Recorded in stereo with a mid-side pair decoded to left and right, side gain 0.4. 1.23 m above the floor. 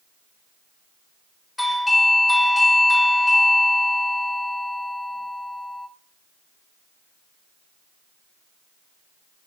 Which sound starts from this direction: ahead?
A doorbell, at 1.6 s.